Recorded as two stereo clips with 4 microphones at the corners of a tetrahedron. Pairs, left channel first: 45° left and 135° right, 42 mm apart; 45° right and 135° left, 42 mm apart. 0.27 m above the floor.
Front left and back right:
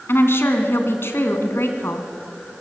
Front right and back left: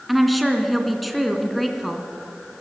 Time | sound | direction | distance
0.1 | a woman speaking | 45° left | 3 m